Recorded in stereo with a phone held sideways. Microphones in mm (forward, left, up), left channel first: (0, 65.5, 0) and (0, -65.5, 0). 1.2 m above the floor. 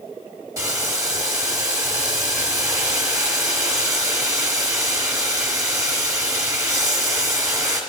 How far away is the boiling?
About 2 m.